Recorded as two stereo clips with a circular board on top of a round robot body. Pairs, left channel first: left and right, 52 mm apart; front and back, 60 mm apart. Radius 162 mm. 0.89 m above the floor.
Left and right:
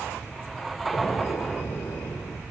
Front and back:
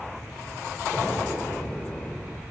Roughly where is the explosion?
Left.